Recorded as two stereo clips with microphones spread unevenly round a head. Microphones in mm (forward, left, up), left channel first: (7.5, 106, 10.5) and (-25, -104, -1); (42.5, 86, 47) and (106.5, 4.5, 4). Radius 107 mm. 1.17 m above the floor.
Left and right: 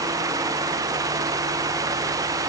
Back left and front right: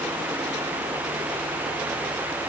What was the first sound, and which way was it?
Only background noise.